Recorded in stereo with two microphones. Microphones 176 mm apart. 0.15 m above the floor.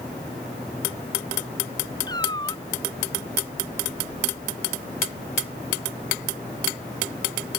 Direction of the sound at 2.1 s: 25° left (ahead or behind).